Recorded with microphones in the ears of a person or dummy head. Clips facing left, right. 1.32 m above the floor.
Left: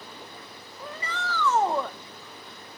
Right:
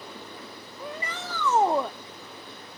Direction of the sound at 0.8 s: 20° right (ahead or behind).